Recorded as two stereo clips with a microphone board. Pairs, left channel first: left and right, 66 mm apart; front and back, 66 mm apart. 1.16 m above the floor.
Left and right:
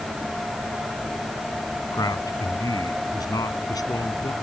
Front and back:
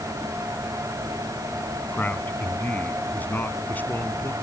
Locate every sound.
1.9 s a man speaking: 65° left